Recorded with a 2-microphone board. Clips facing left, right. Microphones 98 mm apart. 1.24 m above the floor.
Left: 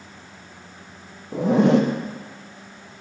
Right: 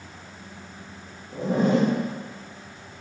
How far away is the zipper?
About 0.5 m.